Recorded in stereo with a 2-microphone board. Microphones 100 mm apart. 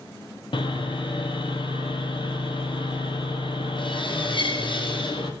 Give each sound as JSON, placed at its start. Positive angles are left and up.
{"t": 0.5, "sound": "sawing", "side_deg": 55, "distance_m": 1.4}